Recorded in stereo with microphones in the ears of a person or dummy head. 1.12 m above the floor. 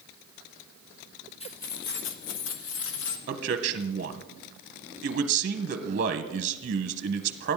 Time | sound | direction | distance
1.4 | keys jangling | 30° left (ahead or behind) | 0.9 m
3.3 | a man speaking | 40° right (ahead or behind) | 0.8 m